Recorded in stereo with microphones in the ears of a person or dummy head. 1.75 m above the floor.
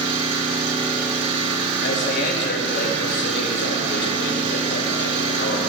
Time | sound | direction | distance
0.0 | an engine running | 40° right (ahead or behind) | 2 m
1.8 | a man speaking | 55° left (ahead or behind) | 2.5 m